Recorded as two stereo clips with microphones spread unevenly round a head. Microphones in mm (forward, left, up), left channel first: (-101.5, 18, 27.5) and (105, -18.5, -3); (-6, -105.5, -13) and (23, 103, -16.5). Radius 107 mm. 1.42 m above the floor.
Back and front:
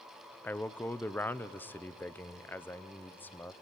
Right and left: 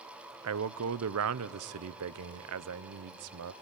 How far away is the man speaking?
About 0.6 m.